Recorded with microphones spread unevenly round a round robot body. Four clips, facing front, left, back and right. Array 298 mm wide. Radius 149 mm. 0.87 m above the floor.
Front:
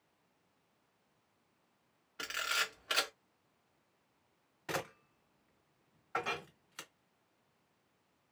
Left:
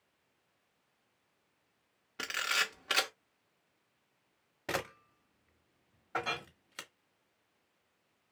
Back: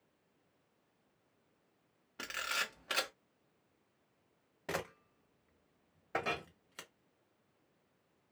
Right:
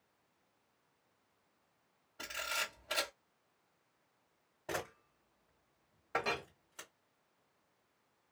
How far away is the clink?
About 0.7 m.